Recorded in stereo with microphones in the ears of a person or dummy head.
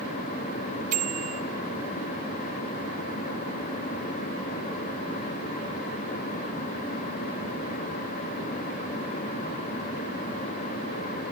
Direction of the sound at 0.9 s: 45° right (ahead or behind).